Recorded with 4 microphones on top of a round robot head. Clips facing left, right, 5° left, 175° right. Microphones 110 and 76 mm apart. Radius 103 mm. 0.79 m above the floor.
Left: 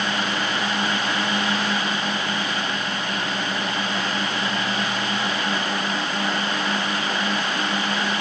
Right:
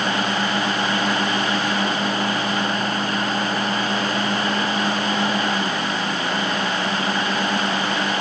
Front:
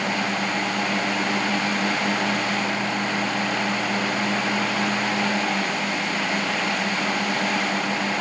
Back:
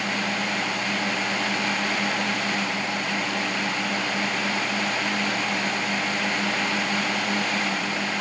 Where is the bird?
No bird in this recording.